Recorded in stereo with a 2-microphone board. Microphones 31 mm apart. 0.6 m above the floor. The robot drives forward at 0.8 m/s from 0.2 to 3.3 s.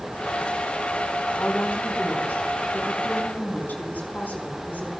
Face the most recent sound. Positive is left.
turn(degrees=80)